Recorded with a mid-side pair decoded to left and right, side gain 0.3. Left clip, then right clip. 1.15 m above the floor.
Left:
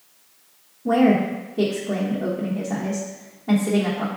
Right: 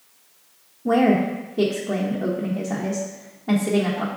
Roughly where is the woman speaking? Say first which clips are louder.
Even; ahead.